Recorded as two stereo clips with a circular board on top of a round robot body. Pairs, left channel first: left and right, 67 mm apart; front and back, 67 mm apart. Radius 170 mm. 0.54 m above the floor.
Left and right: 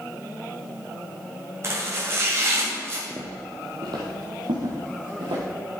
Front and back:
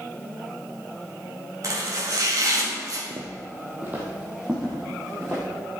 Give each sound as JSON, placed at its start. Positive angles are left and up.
{"t": 1.6, "sound": "chopping", "azimuth_deg": -140, "distance_m": 2.5}
{"t": 3.1, "sound": "footsteps", "azimuth_deg": -160, "distance_m": 0.8}